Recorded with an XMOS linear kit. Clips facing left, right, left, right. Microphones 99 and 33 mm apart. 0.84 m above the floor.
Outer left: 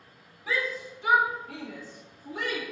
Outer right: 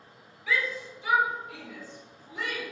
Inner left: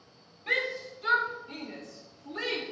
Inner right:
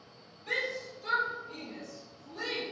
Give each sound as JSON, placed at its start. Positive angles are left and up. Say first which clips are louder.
{"t": 0.5, "sound": "a shout", "louder": "even, inner left 4 dB", "side_deg": 35, "distance_m": 1.7}